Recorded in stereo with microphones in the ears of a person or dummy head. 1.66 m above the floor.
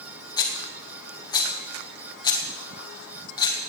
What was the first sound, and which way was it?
A rattle, 25° left (ahead or behind).